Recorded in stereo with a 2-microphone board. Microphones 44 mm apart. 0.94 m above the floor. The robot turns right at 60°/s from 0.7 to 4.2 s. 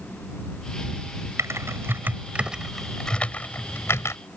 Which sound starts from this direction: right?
Typing on a keyboard, at 1.4 s.